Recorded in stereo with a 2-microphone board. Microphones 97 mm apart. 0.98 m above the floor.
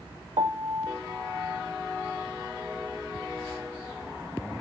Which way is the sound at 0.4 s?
65° right (ahead or behind).